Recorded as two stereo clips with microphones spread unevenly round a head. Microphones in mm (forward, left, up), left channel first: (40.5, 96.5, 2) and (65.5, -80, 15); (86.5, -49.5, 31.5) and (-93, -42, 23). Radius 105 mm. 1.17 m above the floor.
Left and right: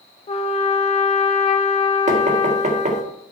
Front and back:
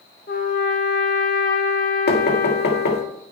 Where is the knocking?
30° right, 1.8 m.